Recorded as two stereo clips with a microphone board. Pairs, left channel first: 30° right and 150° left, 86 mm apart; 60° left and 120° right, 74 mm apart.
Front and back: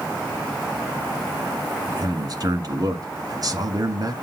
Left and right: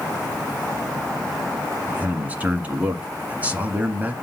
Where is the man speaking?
175° left, 1.7 m.